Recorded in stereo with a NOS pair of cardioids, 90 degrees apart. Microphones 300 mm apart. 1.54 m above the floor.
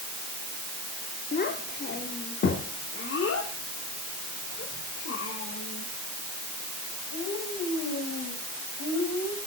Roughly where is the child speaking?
Ahead left.